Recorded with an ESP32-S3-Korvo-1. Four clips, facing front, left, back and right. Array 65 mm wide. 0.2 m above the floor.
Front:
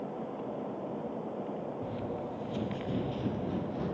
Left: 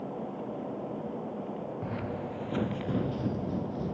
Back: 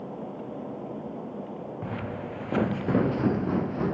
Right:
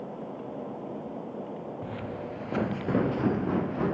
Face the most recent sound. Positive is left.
turn(degrees=-120)